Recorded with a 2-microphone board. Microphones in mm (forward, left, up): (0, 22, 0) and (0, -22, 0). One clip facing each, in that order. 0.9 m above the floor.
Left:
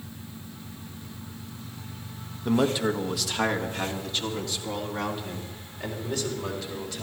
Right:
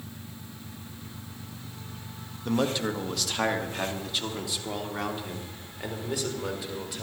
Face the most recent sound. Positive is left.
turn(degrees=-10)  # may be behind; listen again after turning